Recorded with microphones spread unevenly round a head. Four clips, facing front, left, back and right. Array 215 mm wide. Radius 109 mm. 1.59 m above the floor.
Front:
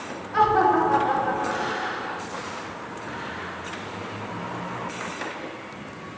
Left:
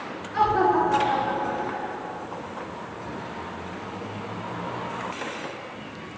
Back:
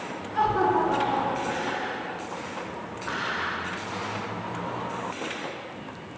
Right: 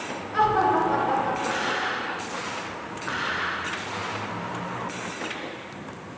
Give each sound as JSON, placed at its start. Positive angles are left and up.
{"t": 0.3, "sound": "laughter", "azimuth_deg": -15, "distance_m": 1.3}